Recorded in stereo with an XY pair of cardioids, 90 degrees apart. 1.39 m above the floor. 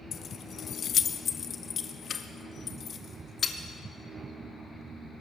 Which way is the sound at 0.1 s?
60° left.